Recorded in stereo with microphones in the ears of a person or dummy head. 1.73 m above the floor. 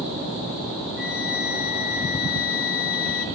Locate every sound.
1.0 s a flute: 50° left (ahead or behind), 1.3 m